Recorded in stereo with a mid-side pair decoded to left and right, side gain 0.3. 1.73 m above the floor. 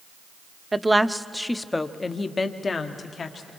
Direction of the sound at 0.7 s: 25° right.